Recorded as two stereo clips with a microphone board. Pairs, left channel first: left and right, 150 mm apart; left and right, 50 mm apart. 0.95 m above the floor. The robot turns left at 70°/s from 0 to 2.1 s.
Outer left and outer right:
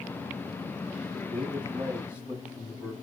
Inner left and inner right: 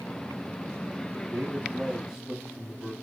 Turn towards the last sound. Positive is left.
turn(degrees=-170)